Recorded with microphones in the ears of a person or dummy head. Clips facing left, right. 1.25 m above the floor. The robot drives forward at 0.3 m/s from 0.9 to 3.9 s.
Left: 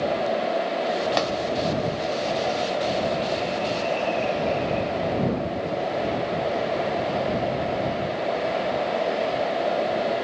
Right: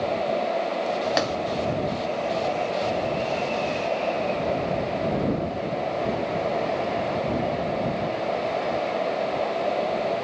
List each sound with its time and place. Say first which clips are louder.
1.2 s tapping: even; 5° right (ahead or behind), 2.5 m